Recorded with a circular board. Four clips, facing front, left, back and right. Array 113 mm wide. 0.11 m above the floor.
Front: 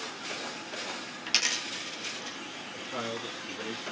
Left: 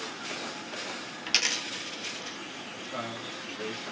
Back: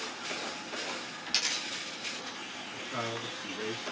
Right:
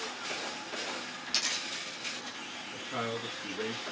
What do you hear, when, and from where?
1.3 s a dropped coin: 60° left, 0.6 m
2.7 s a man speaking: 115° right, 1.5 m